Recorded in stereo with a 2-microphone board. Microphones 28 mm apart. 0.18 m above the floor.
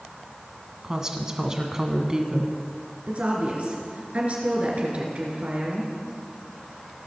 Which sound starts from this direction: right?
A woman speaking, at 3.1 s.